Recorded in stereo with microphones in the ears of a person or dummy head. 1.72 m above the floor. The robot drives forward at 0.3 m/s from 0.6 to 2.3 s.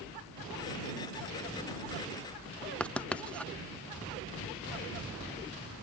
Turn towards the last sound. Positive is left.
turn(degrees=5)  # may be behind; listen again after turning